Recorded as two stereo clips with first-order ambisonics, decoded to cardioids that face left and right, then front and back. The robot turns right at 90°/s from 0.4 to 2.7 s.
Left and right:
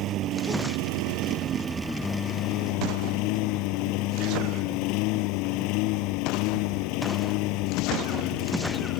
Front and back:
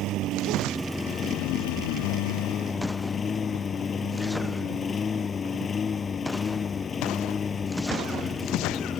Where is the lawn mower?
135° right; by 9.0 s 70° left.